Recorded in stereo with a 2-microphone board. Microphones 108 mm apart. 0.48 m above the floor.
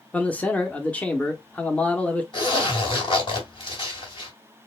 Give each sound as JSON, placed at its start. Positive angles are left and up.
{"t": 0.1, "sound": "a man speaking", "side_deg": 10, "distance_m": 0.7}
{"t": 2.3, "sound": "a zipper", "side_deg": 45, "distance_m": 2.5}